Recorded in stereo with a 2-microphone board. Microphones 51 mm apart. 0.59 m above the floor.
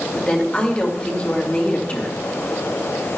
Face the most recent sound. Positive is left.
turn(degrees=25)  # may be behind; listen again after turning